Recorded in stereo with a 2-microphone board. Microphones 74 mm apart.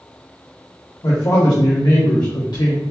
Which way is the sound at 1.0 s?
55° left (ahead or behind).